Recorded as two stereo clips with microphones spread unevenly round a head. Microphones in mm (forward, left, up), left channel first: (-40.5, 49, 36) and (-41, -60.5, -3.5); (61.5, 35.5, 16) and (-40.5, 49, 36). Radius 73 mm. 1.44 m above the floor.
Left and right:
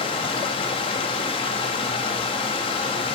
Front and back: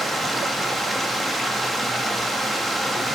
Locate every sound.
0.0 s running water: 90° left, 1.3 m